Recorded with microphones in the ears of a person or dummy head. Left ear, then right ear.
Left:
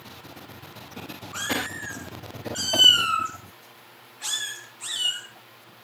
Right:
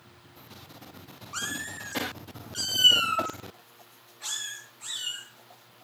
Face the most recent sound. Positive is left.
turn(degrees=10)  # may be behind; listen again after turning